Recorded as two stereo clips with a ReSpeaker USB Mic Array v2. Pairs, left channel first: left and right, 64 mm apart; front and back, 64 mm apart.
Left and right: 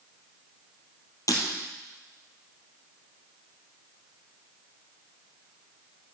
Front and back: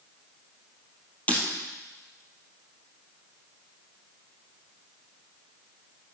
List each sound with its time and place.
1.3 s breaking glass: 65° left, 2 m